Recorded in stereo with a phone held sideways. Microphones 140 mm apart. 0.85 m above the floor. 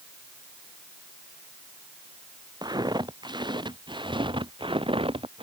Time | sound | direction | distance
2.6 | footsteps | 30° right (ahead or behind) | ?